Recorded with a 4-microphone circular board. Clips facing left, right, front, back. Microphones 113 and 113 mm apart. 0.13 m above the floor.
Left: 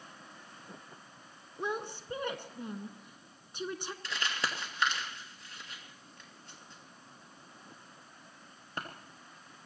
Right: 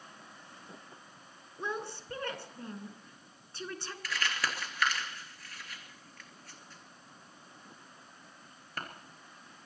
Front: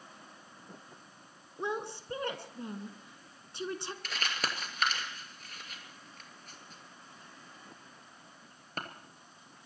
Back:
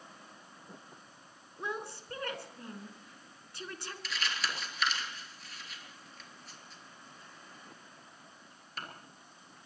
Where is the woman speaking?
35° left, 1.4 m.